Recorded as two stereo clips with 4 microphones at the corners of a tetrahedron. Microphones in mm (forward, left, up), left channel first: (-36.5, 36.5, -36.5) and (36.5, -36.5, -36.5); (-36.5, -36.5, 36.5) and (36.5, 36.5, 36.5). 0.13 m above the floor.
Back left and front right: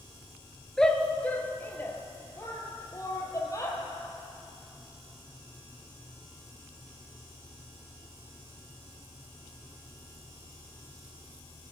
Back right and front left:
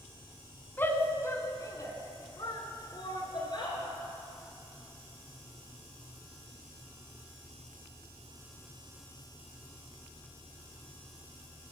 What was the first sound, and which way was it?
A shout, 150° right.